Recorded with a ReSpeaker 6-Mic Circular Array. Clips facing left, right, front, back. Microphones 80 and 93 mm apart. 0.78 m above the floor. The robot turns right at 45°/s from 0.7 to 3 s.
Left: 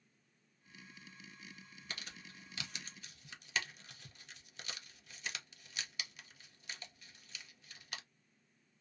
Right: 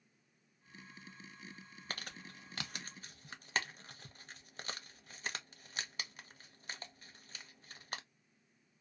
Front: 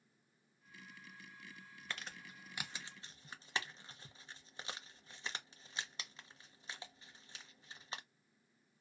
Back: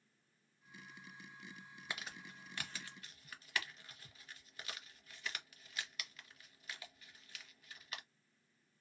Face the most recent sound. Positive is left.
turn(degrees=-55)